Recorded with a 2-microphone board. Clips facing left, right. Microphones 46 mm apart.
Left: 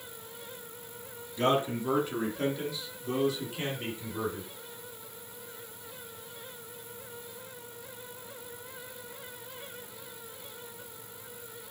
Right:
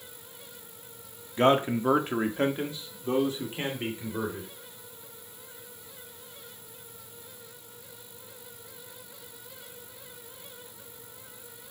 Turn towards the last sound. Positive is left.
turn(degrees=-30)  # may be behind; listen again after turning